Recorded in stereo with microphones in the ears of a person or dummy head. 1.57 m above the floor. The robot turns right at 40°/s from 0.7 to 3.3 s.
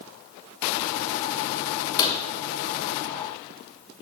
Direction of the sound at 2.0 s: 20° left (ahead or behind).